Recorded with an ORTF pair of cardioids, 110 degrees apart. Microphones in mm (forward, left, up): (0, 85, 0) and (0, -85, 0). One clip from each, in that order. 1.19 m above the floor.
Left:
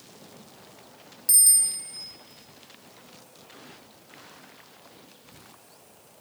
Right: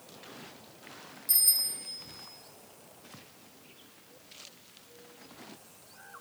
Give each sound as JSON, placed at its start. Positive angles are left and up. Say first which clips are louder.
{"t": 1.3, "sound": "a bicycle bell", "louder": "left 6 dB", "azimuth_deg": 60, "distance_m": 3.5}